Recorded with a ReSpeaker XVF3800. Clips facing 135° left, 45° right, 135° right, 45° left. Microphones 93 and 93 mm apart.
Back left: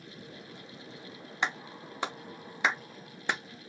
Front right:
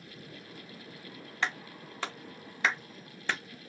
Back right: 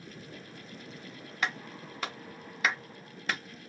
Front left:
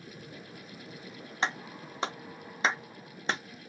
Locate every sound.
1.4 s a clap: 80° left, 0.5 m